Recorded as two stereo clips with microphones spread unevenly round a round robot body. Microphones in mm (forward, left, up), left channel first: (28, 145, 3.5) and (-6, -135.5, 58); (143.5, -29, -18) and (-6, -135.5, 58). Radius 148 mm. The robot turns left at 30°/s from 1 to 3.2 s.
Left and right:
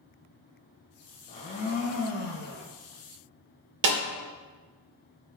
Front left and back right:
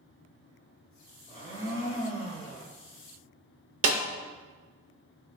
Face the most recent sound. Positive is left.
turn(degrees=-125)